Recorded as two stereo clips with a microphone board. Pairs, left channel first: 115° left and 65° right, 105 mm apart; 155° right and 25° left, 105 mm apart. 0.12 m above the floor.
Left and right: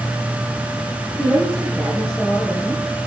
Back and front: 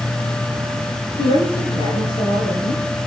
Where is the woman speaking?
160° right, 9.5 m.